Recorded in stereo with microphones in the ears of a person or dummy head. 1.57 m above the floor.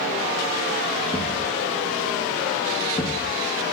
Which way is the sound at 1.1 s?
15° left (ahead or behind).